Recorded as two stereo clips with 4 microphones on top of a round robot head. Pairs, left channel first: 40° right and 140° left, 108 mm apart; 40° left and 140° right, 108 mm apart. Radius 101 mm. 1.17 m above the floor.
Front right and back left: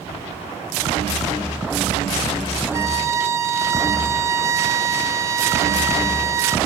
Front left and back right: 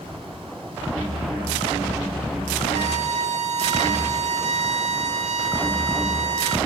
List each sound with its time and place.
2.7 s a violin: 155° right, 1.9 m